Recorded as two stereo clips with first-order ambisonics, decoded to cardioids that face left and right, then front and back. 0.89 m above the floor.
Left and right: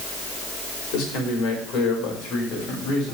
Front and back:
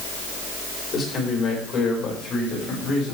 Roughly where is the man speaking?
Ahead left.